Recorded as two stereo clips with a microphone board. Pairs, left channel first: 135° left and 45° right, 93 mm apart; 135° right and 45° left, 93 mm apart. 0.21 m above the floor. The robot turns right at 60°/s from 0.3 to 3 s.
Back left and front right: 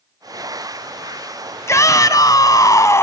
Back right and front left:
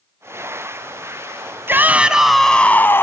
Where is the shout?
95° left, 1.6 m; by 3.0 s 175° left, 1.6 m.